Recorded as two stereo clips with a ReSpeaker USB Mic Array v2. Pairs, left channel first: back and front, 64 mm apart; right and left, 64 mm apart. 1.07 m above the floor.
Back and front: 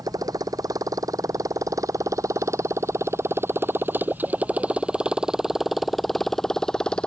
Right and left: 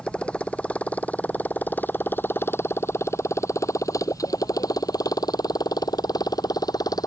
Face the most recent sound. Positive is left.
turn(degrees=-105)